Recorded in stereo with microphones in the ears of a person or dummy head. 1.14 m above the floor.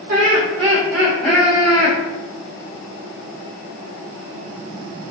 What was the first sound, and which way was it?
Laughter, 55° right (ahead or behind).